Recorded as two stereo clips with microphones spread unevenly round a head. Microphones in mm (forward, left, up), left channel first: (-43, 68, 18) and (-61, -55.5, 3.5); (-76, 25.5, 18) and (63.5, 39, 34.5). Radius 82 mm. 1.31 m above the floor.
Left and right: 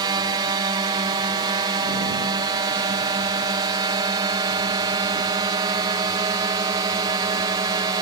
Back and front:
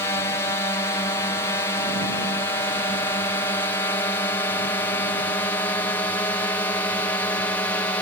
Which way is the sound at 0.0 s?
120° right.